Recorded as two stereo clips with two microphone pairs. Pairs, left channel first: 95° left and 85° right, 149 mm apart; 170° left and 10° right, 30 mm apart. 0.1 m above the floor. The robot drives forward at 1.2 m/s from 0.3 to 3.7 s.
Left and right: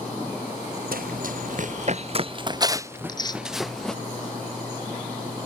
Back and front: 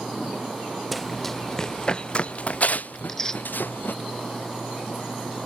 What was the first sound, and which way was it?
Running footsteps, 100° right.